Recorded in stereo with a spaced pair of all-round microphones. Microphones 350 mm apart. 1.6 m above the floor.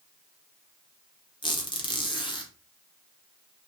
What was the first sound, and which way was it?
A squeak, 15° left (ahead or behind).